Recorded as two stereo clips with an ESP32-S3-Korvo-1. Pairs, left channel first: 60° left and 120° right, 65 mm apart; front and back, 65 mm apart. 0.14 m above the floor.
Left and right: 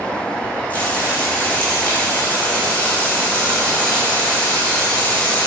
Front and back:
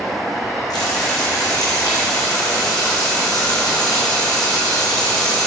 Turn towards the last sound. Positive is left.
turn(degrees=-5)